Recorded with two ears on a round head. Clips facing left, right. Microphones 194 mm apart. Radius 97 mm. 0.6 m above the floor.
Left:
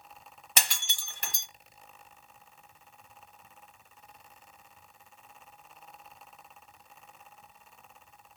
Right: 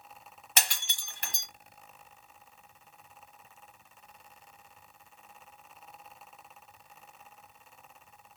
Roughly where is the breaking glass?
Left.